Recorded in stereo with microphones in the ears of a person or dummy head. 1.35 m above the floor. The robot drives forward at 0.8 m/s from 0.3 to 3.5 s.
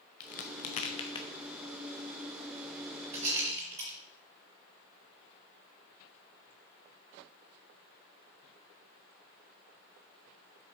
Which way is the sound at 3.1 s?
35° right (ahead or behind).